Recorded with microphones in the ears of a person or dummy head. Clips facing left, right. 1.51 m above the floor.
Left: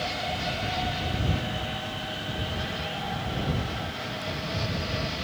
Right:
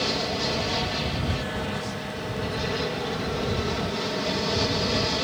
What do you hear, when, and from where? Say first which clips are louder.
0.0 s an aircraft: right 4 dB; 60° right (ahead or behind)